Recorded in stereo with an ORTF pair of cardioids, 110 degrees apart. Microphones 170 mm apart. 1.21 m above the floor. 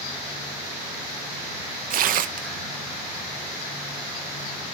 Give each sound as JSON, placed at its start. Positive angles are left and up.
{"t": 1.9, "sound": "tearing paper", "azimuth_deg": -60, "distance_m": 0.6}